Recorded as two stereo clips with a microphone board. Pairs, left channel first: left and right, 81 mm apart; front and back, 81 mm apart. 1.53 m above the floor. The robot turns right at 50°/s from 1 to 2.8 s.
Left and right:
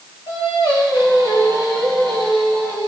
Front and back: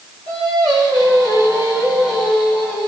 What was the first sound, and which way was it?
Singing, 150° right.